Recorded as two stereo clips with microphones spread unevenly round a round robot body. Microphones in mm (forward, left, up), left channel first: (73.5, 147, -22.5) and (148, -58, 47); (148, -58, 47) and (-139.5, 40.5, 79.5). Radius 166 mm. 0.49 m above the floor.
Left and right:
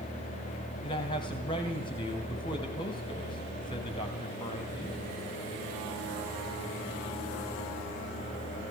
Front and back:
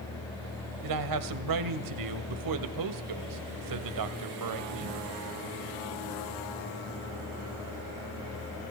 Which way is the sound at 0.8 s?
Straight behind.